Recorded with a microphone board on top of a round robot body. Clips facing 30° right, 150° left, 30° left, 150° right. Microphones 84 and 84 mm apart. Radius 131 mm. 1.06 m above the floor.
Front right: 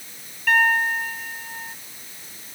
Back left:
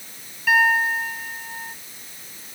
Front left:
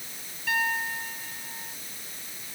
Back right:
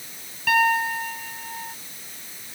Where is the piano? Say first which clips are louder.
Back left 1 dB, back right 8 dB; 125° right.